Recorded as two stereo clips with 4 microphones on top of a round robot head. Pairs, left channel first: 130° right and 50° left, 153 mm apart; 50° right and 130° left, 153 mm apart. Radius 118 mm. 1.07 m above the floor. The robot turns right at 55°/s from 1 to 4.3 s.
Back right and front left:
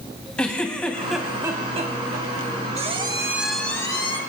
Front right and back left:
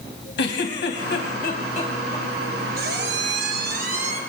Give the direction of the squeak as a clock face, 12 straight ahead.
9 o'clock.